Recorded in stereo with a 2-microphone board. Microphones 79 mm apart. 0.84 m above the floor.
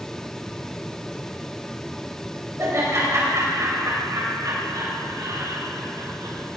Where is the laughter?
40° right (ahead or behind), 4.5 m; by 6.4 s 70° right (ahead or behind), 5 m.